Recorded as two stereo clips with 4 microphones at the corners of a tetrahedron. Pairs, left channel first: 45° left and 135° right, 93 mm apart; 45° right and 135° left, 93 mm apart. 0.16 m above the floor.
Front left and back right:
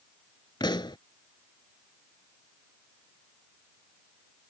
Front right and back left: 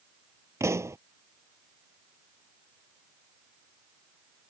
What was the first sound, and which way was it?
A pop, 80° left.